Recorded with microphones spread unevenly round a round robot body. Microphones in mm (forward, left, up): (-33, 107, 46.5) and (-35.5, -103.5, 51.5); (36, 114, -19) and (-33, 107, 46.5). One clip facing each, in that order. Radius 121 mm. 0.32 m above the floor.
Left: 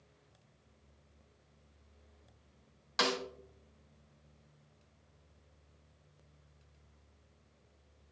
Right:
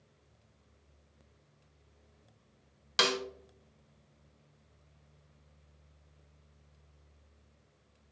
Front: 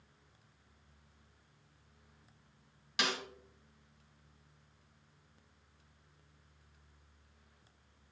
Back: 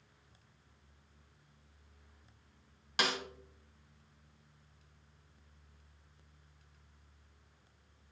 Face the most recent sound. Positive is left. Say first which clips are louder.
# right 2 dB, back 2 dB
turn(degrees=-85)